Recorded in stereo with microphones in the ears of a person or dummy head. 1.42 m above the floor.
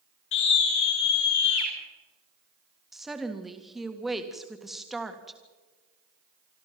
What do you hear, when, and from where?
0.3 s a scream: 70° left (ahead or behind), 5.5 m; by 1.7 s 75° left (ahead or behind), 5 m
2.9 s a woman speaking: centre (ahead or behind), 1.8 m